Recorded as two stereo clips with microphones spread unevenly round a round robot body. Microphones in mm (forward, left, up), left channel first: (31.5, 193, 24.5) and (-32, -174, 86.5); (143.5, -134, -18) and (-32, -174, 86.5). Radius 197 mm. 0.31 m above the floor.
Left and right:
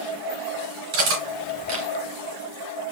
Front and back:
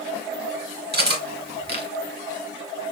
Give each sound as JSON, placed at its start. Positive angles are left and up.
{"t": 0.9, "sound": "cutlery clinking", "azimuth_deg": -125, "distance_m": 2.5}